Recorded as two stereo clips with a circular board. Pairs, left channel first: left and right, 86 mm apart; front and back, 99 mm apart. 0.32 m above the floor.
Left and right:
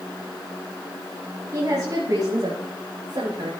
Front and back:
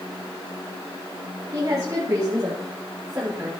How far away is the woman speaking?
About 2 m.